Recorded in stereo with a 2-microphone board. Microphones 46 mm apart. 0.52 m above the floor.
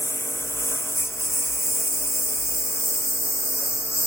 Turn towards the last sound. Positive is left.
turn(degrees=70)  # may be behind; listen again after turning